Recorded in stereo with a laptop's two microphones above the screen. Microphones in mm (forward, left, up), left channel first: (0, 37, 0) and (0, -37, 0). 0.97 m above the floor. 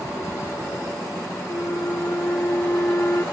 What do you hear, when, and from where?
1.5 s a flute: 35° left (ahead or behind)